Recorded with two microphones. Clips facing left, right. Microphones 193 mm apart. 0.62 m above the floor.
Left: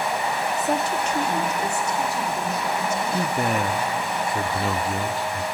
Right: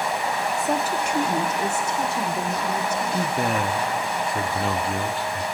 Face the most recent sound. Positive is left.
turn(degrees=0)  # may be behind; listen again after turning